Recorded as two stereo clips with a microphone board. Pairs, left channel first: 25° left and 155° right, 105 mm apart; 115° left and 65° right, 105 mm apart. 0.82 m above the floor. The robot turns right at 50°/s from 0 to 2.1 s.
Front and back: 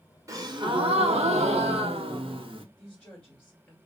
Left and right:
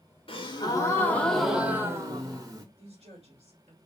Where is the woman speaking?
60° right, 2 m.